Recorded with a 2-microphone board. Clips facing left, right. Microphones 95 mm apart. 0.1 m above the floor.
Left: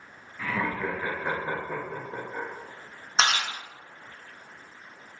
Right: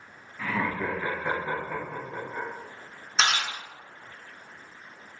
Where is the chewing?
30° left (ahead or behind), 1.3 m.